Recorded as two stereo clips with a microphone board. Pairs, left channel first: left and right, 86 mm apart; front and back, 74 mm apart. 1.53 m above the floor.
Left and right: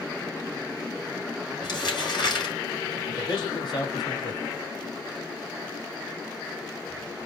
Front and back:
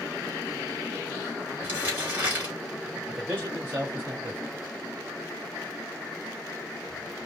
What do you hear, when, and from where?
1.6 s crumpling: 115° left, 3 m
3.1 s a man speaking: 120° left, 2.5 m